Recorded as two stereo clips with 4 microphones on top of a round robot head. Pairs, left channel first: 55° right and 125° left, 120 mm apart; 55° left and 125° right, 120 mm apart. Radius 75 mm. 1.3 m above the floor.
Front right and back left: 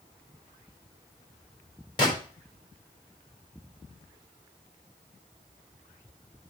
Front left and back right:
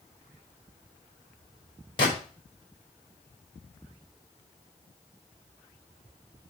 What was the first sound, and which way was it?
A gunshot, straight ahead.